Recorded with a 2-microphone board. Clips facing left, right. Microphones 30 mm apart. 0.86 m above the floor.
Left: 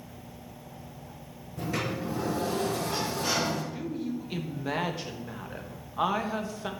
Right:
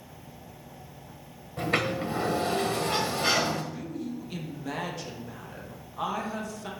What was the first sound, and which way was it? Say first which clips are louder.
A sliding door: right 4 dB; 65° right (ahead or behind).